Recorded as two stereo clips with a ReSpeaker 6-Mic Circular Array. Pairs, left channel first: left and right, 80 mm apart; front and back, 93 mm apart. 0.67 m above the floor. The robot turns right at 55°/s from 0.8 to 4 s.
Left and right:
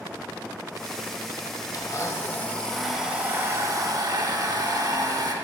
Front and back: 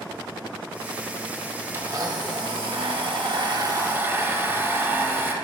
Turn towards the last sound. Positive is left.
turn(degrees=-115)